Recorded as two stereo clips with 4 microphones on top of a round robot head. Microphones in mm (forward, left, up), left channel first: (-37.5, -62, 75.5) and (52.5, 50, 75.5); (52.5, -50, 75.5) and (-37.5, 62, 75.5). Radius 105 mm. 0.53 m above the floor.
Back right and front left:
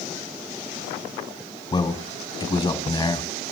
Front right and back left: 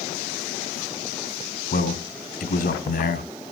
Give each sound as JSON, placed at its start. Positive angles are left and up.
{"t": 1.7, "sound": "a man speaking", "azimuth_deg": -70, "distance_m": 3.0}